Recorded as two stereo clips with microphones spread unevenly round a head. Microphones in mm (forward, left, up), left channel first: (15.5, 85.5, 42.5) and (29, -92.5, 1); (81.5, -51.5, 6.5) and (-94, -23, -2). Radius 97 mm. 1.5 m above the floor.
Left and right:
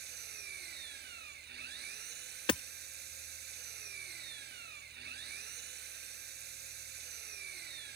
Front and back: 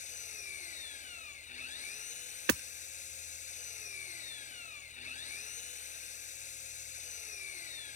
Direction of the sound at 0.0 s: 55° right.